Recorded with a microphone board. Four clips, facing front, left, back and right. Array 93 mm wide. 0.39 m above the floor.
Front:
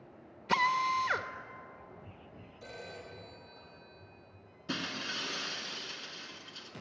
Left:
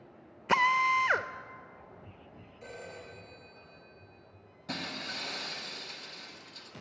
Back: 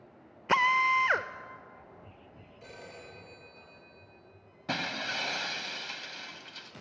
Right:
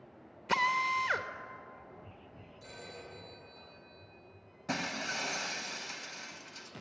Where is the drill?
140° left, 0.7 m.